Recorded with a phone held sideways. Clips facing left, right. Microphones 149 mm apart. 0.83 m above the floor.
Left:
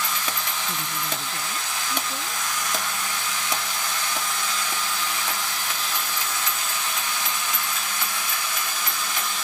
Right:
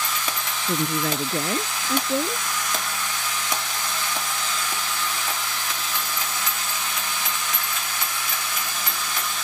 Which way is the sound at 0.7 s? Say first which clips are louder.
Right 7 dB; 65° right (ahead or behind).